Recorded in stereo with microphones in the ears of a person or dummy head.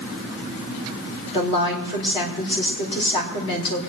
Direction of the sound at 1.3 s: 25° left (ahead or behind).